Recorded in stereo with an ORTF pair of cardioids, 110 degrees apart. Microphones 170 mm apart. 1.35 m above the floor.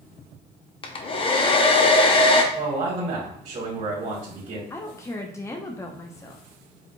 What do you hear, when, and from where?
0.8 s a hair dryer: 30° left, 0.8 m
2.5 s a man speaking: 40° right, 2 m
4.7 s a woman speaking: 20° left, 0.8 m